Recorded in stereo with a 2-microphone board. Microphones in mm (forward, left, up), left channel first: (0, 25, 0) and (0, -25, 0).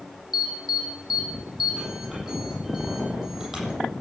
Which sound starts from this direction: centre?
An alarm, at 0.3 s.